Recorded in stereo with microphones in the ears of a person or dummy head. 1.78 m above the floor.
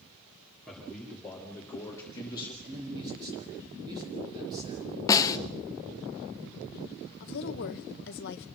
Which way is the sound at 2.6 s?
25° right (ahead or behind).